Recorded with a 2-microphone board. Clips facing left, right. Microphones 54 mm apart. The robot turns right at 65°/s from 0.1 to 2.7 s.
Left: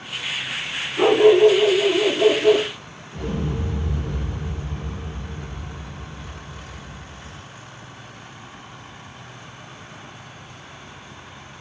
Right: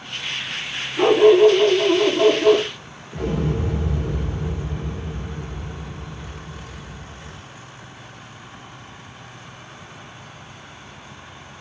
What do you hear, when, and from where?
1.0 s a dog barking: 175° left, 1.9 m; by 2.7 s 75° right, 1.9 m
3.1 s an explosion: 65° right (ahead or behind), 2 m